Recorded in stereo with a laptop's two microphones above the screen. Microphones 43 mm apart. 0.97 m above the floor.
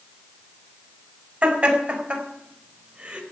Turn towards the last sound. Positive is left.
turn(degrees=-35)  # may be behind; listen again after turning